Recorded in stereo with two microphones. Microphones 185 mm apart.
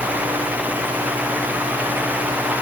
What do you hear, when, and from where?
Only background noise.